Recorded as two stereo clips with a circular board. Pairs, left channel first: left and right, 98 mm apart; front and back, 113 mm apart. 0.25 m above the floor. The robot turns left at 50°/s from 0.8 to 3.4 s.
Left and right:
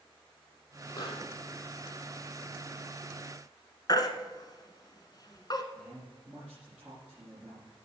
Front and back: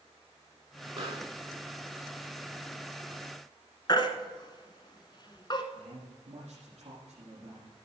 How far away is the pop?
About 4 m.